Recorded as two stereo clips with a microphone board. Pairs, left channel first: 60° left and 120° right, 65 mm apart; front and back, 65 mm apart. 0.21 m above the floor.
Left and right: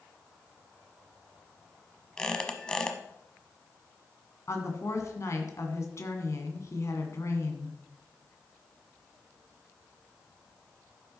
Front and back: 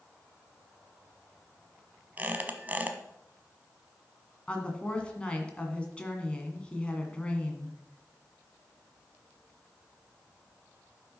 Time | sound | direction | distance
2.2 | a squeak | 135° left | 1.1 m
4.5 | a woman speaking | 70° left | 2 m